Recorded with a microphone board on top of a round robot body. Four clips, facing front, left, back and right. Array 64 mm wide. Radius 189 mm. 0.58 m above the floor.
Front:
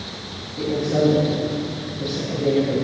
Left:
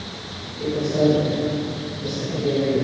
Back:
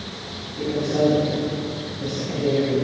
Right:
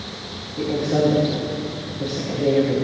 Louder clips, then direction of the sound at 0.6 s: Right 1 dB, front 1 dB; 80° right.